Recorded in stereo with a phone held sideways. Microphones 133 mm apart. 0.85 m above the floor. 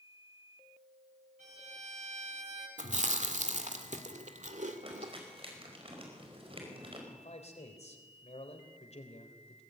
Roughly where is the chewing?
Right.